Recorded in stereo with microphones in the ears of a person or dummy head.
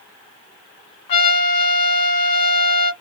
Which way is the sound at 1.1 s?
40° left (ahead or behind).